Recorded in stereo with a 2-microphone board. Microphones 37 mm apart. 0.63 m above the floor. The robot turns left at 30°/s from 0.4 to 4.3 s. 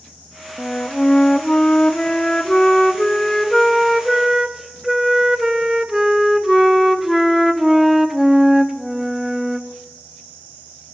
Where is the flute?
30° left (ahead or behind), 0.7 m; by 9.7 s 10° right (ahead or behind), 0.7 m.